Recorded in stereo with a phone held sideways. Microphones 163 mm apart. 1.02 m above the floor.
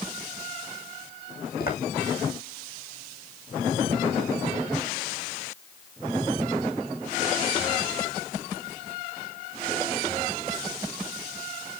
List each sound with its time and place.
1.6 s footsteps: 70° left (ahead or behind), 3 m